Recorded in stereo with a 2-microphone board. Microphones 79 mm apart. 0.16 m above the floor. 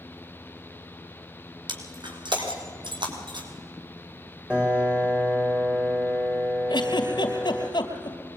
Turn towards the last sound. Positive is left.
turn(degrees=70)  # may be behind; listen again after turning